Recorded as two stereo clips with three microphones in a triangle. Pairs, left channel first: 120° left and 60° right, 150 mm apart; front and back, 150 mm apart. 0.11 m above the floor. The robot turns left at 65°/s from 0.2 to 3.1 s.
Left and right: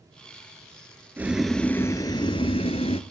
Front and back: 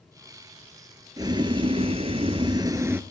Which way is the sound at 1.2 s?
130° right.